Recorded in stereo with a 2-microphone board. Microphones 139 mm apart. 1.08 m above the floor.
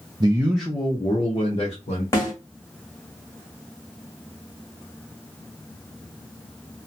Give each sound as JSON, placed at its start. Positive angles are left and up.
{"t": 0.2, "sound": "a man speaking", "side_deg": -35, "distance_m": 0.5}
{"t": 2.1, "sound": "a snare drum", "side_deg": 20, "distance_m": 1.4}